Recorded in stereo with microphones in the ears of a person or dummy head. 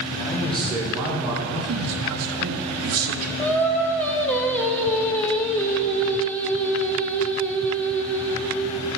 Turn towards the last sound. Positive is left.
turn(degrees=5)  # may be behind; listen again after turning